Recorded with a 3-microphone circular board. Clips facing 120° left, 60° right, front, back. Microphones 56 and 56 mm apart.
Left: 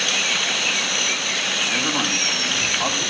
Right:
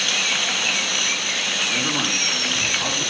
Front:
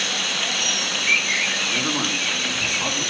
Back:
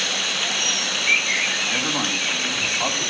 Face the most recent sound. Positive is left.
turn(degrees=170)